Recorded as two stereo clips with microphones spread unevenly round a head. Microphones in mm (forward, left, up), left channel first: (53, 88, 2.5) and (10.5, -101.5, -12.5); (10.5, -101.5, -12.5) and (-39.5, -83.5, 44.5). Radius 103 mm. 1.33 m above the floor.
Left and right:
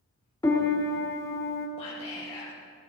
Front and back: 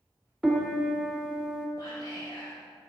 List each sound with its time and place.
0.4 s a piano: 150° left, 1.2 m
1.8 s whispering: 15° left, 1.8 m